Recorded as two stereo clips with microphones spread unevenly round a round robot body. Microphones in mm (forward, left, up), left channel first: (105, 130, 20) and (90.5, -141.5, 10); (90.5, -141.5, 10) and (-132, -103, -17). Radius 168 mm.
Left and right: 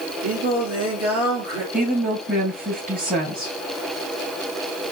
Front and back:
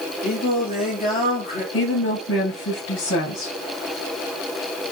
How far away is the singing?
About 4.5 m.